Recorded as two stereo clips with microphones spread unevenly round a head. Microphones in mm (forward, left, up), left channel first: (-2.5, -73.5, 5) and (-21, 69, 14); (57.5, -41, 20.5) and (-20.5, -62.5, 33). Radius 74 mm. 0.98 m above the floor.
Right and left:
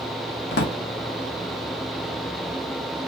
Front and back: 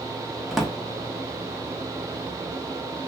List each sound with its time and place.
0.5 s a drawer: 80° right, 1.0 m